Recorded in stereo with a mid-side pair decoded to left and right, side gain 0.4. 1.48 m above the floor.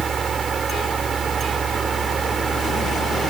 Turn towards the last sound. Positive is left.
turn(degrees=-55)